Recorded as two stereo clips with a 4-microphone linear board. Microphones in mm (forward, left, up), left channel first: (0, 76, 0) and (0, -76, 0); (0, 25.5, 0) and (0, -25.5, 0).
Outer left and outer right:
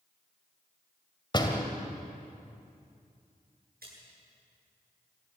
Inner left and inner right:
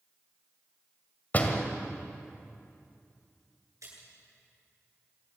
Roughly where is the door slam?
Left.